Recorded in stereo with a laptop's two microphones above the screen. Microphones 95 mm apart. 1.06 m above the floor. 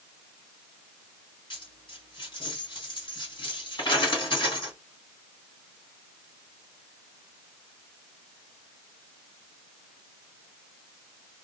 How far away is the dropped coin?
About 1.8 m.